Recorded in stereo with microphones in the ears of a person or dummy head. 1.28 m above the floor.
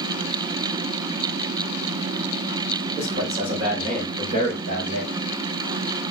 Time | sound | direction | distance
3.0 | a man speaking | 35° right (ahead or behind) | 4 m